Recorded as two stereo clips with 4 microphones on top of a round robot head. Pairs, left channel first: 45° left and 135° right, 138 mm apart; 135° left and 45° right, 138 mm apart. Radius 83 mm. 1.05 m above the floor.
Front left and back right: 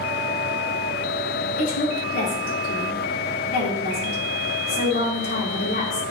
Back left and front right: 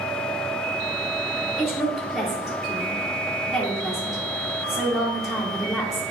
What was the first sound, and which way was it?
A woman speaking, 40° left.